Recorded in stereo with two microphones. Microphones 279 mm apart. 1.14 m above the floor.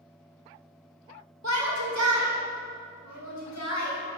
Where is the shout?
75° right (ahead or behind), 4 m; by 4.0 s 80° right, 6.5 m.